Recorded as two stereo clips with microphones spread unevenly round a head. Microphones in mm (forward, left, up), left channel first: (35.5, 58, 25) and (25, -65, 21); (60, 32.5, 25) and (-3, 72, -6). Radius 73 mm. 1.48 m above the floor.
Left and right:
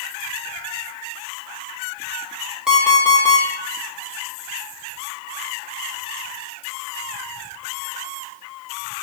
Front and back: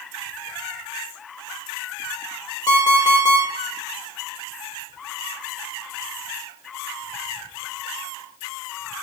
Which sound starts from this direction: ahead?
An alarm clock, at 2.7 s.